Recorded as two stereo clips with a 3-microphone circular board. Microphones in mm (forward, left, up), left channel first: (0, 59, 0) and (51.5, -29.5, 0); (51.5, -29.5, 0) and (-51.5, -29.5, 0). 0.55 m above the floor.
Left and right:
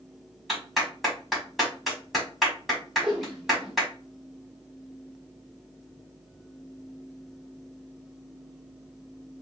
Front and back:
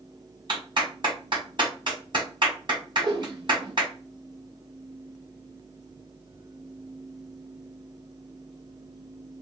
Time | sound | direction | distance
0.5 | a clap | 150° right | 1.8 m
3.0 | a whoosh | 140° right | 1.5 m